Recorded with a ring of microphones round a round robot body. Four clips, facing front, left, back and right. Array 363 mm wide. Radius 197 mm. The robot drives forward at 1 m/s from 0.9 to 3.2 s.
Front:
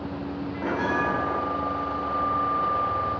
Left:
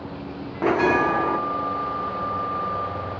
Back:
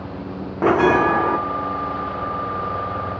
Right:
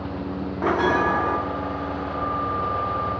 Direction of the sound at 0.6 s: 170° left.